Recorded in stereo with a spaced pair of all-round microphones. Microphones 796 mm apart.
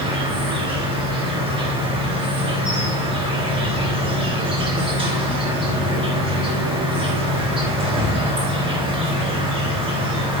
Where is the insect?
5° right (ahead or behind), 1.9 m.